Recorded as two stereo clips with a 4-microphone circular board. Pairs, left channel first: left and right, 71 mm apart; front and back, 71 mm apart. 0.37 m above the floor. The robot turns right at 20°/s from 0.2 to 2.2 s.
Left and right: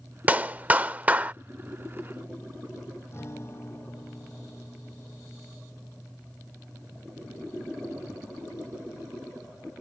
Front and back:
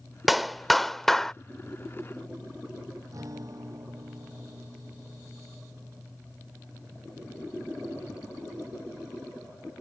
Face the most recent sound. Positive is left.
turn(degrees=140)